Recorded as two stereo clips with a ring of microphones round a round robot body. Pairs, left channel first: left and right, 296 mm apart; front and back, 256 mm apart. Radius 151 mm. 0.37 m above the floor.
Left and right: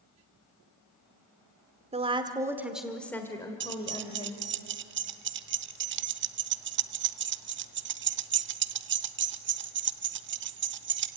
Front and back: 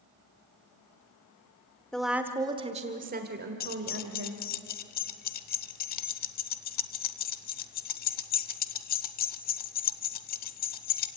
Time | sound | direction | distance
1.9 | a woman speaking | 80° right | 1.4 m
3.6 | keys jangling | 50° right | 0.8 m